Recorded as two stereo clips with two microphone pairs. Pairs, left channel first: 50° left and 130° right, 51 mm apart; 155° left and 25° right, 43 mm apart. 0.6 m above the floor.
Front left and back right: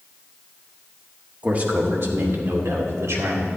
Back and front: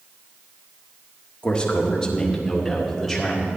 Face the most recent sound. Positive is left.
turn(degrees=-120)